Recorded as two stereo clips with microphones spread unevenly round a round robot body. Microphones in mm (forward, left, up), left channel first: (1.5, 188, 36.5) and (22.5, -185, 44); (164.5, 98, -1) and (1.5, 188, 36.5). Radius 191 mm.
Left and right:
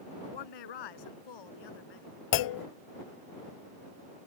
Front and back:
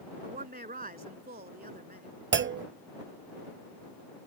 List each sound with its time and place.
0.2 s a woman speaking: 110° left
2.3 s a clunk: 125° left